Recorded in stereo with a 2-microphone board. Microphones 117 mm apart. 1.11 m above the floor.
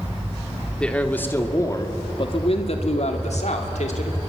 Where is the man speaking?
10° left (ahead or behind), 2.5 m; by 4.2 s 85° left, 3.5 m.